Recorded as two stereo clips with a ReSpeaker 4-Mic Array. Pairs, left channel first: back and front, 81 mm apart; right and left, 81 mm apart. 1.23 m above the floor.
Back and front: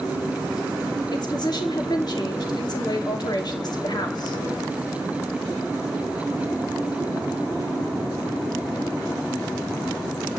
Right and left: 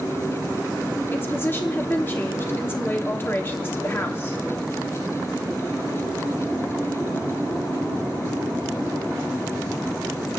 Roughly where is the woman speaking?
Behind right.